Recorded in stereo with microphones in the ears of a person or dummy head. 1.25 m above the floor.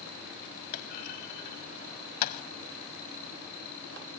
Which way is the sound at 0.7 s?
50° left (ahead or behind).